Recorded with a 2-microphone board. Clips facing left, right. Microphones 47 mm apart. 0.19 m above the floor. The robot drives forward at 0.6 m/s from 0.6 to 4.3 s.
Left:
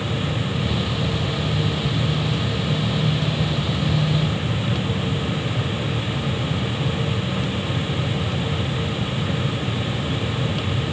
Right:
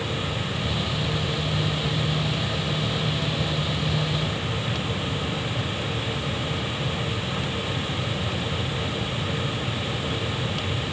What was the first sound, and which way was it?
Only background noise.